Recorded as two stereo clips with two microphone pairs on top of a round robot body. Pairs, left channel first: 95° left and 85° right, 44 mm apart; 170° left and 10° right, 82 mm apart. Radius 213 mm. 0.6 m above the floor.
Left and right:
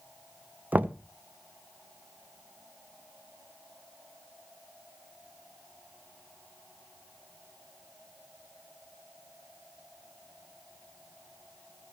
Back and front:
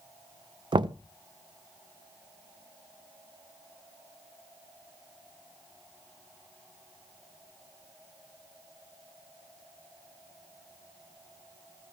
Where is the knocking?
25° right, 0.5 m.